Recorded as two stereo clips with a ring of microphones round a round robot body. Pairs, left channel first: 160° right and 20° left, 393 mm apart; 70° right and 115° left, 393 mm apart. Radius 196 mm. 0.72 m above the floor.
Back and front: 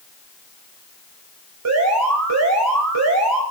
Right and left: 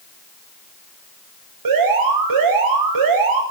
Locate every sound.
1.6 s an alarm: 75° left, 6 m